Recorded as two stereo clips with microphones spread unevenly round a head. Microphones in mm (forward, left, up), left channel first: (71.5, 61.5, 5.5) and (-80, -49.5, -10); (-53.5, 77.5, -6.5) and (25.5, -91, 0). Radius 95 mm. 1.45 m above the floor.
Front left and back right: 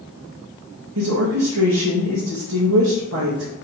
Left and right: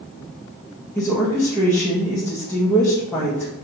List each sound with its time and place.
0.9 s a woman speaking: 160° right, 1.8 m